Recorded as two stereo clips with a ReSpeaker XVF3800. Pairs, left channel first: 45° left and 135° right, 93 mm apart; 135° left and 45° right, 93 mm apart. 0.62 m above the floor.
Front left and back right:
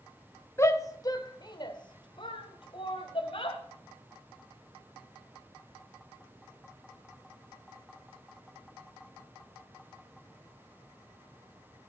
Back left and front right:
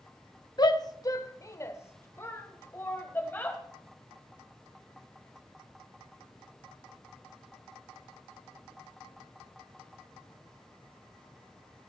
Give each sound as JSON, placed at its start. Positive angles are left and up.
{"t": 0.6, "sound": "a shout", "azimuth_deg": 100, "distance_m": 1.2}